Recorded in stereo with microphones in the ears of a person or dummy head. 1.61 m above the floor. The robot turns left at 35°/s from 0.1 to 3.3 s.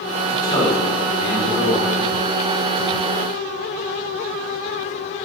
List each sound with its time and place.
0.3 s a man speaking: 160° left, 5.5 m; by 1.9 s 105° left, 5.5 m